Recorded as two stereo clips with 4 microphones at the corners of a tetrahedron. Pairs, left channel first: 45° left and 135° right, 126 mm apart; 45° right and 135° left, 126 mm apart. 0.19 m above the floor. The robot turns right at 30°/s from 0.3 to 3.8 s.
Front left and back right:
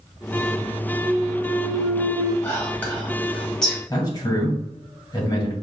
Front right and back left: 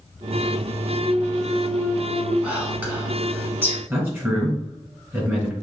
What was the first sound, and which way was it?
A clunk, 175° right.